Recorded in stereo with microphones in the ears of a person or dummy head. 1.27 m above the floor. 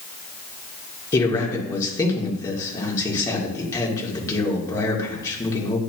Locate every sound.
1.1 s a man speaking: 20° left (ahead or behind), 1.9 m